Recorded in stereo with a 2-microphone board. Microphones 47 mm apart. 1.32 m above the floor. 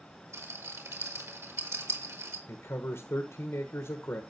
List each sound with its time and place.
0.3 s a rattle: 85° right, 4 m
2.5 s a man speaking: 70° left (ahead or behind), 1.3 m